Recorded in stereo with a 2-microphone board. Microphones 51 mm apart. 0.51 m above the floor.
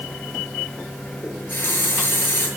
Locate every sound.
1.2 s a running tap: 45° left (ahead or behind), 5.5 m